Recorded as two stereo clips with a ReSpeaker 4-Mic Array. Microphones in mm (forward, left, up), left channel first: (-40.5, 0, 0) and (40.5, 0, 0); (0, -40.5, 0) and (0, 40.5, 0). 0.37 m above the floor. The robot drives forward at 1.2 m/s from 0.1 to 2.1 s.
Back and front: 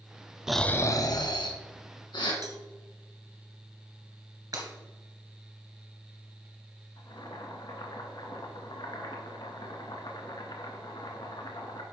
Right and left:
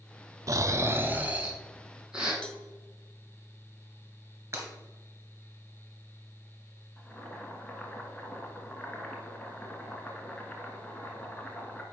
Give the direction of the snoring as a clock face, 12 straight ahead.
9 o'clock.